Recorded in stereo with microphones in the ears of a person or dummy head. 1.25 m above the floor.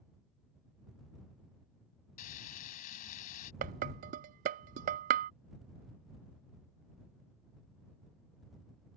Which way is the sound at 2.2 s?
40° left (ahead or behind).